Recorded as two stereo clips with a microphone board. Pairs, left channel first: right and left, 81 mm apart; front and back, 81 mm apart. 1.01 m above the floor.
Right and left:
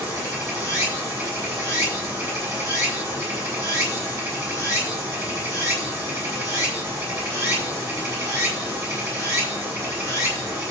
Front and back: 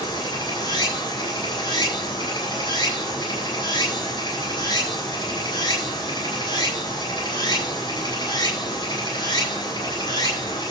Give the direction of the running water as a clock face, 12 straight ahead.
11 o'clock.